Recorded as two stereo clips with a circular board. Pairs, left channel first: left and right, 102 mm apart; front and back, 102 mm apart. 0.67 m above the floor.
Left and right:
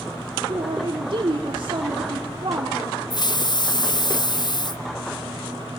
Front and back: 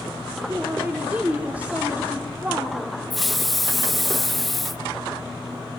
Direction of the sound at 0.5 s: 105° right.